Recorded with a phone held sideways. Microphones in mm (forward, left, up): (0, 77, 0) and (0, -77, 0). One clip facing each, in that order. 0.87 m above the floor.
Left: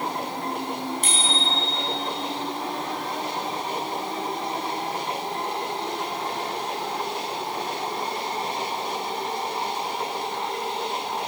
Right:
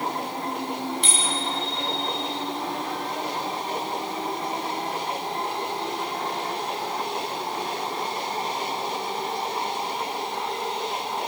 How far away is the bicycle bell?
About 5 m.